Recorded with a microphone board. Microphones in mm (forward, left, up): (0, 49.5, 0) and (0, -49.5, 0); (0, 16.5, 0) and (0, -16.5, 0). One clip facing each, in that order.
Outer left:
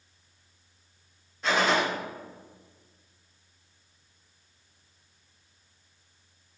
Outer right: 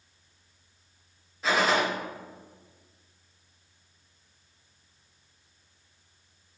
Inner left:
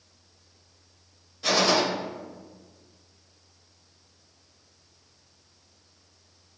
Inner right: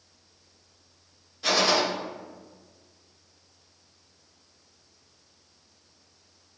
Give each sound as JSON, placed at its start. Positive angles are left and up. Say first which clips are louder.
{"t": 1.4, "sound": "a gunshot", "louder": "even, inner left 1 dB", "side_deg": 0, "distance_m": 0.9}